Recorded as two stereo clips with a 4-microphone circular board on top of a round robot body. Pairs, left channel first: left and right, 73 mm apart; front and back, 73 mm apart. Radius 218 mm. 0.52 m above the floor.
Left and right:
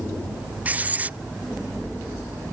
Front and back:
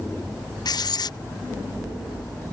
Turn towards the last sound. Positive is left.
turn(degrees=-20)